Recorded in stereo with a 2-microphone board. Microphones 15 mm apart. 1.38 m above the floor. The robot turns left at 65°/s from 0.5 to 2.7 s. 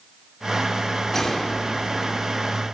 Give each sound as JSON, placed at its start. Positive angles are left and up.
{"t": 1.1, "sound": "a gunshot", "azimuth_deg": 165, "distance_m": 4.5}